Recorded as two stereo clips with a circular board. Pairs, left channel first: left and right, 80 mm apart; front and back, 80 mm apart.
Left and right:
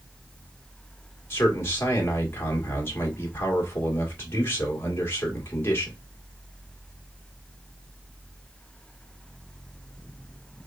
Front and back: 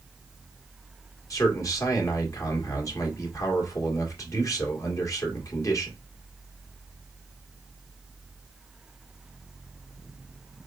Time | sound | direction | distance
1.3 | a man speaking | 35° left | 1.4 m